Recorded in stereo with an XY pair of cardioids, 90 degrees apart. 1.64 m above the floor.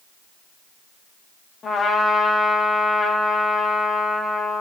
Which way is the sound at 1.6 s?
45° left.